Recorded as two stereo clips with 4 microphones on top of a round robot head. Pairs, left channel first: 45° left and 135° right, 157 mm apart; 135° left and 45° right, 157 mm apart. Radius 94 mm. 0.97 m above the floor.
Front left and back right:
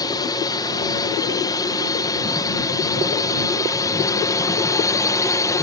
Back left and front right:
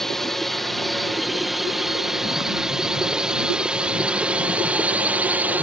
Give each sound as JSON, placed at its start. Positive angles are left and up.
{"t": 0.0, "sound": "a drone", "azimuth_deg": 50}